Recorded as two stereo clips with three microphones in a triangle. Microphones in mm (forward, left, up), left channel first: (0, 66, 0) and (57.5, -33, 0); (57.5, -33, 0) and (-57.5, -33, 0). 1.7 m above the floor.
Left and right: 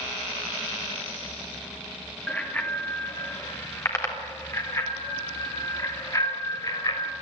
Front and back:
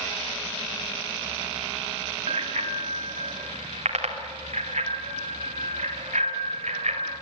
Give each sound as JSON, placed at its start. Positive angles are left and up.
{"t": 2.3, "sound": "a bicycle bell", "azimuth_deg": -165, "distance_m": 2.5}